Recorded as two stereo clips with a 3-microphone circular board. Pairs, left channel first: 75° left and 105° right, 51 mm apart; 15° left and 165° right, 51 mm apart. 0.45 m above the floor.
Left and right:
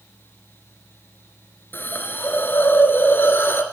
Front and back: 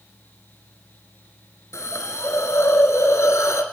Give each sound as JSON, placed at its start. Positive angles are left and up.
{"t": 1.7, "sound": "a hiss", "azimuth_deg": 30, "distance_m": 1.2}